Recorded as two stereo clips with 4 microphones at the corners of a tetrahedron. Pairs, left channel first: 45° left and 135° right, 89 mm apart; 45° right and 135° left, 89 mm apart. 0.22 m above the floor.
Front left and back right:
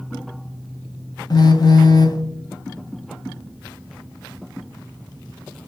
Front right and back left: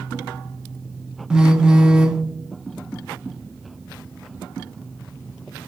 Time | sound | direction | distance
1.3 | a phone buzzing | 60° left | 0.6 m